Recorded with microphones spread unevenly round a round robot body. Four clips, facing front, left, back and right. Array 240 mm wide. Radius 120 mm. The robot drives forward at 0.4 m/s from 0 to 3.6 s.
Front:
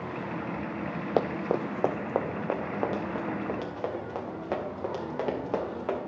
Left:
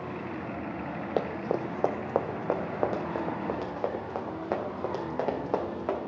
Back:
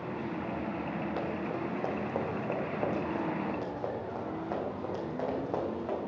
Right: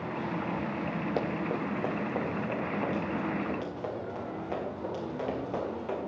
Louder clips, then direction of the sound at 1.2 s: Left 5 dB, front 6 dB; 20° left.